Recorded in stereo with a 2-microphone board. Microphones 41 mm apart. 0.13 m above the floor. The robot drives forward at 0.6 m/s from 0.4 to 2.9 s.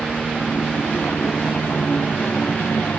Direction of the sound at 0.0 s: 50° left (ahead or behind).